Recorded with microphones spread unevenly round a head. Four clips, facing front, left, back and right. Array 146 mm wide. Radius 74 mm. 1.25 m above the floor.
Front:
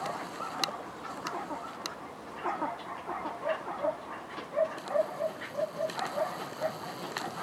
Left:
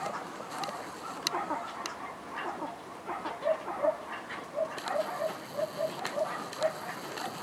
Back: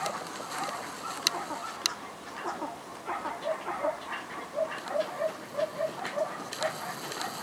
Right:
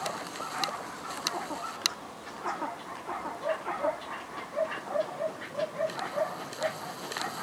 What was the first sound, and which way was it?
Only background noise.